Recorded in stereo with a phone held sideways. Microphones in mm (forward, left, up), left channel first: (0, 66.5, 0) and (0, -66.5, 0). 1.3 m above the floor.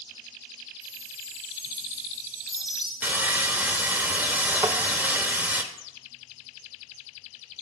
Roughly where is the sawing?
Centre.